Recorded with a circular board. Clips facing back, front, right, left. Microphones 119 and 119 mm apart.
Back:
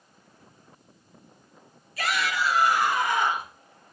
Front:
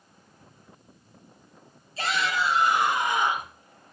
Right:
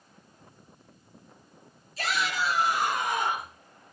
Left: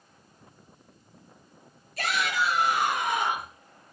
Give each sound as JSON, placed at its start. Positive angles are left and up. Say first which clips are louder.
{"t": 2.0, "sound": "a shout", "louder": "even, left 1 dB", "azimuth_deg": 65, "distance_m": 4.5}